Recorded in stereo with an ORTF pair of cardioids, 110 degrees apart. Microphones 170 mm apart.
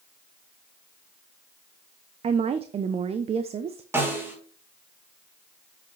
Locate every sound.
2.2 s a woman speaking: 35° right, 0.6 m
3.9 s a snare drum: 15° right, 3 m